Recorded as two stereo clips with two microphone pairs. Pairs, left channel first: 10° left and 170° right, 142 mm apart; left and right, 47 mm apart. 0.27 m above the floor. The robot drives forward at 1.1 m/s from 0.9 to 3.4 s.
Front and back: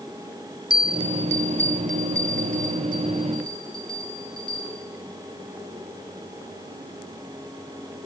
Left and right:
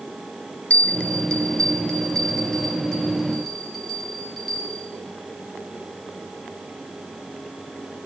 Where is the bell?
145° left, 0.7 m; by 4.9 s 175° left, 3.5 m.